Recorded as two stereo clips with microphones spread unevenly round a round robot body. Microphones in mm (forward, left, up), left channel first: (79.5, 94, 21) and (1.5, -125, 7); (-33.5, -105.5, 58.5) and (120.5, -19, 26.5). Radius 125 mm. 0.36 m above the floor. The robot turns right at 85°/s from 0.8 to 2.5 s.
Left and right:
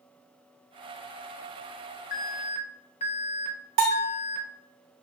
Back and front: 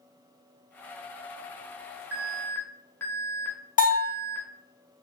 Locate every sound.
2.1 s an alarm: 90° left, 0.8 m; by 4.5 s 125° left, 0.8 m
3.8 s a bell: 115° right, 2.0 m